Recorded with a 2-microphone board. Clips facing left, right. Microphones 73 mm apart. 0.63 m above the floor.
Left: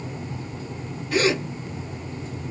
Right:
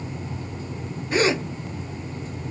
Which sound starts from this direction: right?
A gasp, at 1.1 s.